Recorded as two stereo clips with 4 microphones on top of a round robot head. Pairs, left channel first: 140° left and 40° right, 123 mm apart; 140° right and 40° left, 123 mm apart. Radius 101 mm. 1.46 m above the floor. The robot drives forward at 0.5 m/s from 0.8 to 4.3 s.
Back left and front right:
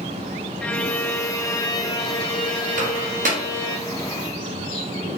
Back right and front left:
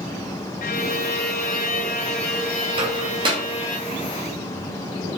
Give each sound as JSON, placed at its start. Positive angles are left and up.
{"t": 0.6, "sound": "a violin", "azimuth_deg": -140, "distance_m": 0.5}
{"t": 2.8, "sound": "a microwave", "azimuth_deg": -15, "distance_m": 2.0}